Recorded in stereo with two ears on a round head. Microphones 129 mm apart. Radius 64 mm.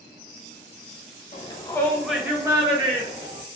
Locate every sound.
1.3 s a shout: 40° left (ahead or behind), 0.7 m; by 3.4 s 50° right (ahead or behind), 1.1 m